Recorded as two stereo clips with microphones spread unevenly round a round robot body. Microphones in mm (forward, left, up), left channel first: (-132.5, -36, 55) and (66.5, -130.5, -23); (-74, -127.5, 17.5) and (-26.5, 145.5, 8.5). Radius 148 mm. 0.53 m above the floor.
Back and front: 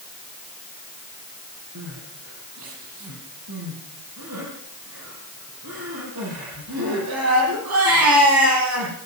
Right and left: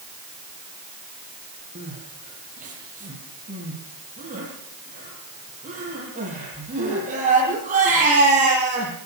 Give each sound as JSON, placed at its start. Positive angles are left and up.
{"t": 1.8, "sound": "crying", "azimuth_deg": 10, "distance_m": 8.5}